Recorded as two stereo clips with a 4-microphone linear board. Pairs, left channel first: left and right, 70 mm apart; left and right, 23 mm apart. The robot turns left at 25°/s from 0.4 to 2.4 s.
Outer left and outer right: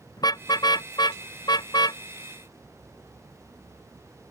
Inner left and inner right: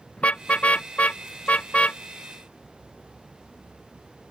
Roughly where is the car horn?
Left.